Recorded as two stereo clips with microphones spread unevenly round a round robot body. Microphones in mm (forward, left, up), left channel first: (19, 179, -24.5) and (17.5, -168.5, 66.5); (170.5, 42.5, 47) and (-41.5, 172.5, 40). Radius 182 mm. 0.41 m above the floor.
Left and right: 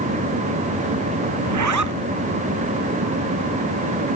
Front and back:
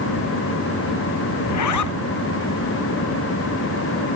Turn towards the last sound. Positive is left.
turn(degrees=-50)